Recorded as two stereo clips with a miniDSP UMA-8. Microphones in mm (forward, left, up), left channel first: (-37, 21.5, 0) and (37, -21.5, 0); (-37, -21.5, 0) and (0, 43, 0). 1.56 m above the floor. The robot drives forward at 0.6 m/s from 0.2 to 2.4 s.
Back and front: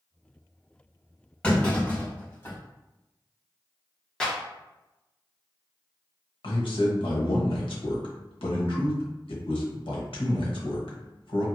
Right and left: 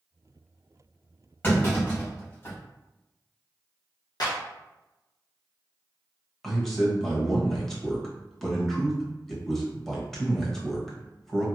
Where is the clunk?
150° right, 1.5 m; by 2.5 s 160° right, 1.8 m.